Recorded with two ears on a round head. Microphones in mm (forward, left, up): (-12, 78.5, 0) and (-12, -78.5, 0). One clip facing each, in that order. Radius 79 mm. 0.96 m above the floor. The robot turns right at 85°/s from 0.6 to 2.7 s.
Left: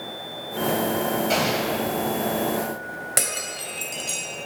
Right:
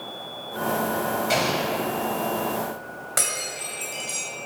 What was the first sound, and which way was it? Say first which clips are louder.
An explosion: left 1 dB; 10° right.